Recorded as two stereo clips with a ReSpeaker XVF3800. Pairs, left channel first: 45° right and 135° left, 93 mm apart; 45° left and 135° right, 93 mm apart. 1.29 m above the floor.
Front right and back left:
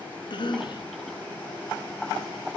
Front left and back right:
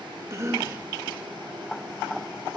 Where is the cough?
75° right, 0.8 m.